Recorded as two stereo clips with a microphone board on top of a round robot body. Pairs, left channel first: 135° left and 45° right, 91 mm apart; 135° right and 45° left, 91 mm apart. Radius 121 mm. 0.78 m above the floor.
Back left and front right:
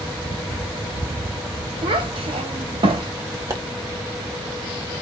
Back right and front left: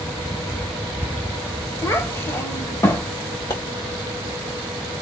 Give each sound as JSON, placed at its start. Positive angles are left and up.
{"t": 1.8, "sound": "a child speaking", "azimuth_deg": -70, "distance_m": 1.1}
{"t": 3.5, "sound": "a pop", "azimuth_deg": -100, "distance_m": 1.7}